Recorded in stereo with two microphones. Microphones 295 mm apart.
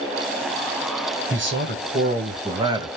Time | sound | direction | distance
1.3 | a man speaking | 45° right (ahead or behind) | 2.0 m